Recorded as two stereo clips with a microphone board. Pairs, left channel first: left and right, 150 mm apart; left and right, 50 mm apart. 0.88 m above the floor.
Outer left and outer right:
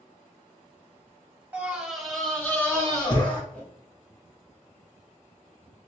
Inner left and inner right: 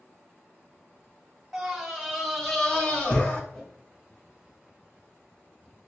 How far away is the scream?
About 1.2 m.